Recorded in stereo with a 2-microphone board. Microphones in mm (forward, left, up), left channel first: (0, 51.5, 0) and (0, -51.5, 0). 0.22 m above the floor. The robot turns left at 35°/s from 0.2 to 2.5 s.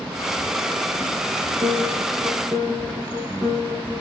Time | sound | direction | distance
1.6 | a piano | 120° right | 3 m